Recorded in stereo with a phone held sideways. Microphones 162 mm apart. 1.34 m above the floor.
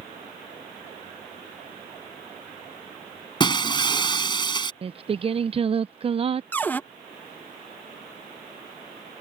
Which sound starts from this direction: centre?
A cupboard door, at 6.5 s.